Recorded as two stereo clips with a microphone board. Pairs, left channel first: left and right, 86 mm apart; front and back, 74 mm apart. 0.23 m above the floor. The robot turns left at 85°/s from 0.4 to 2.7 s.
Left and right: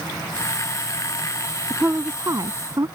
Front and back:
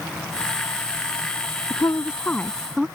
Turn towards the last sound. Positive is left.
turn(degrees=-95)